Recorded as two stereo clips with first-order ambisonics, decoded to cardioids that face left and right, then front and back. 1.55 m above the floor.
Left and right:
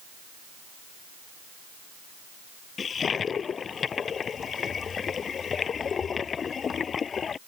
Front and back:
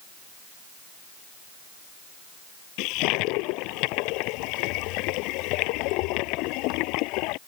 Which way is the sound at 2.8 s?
25° left.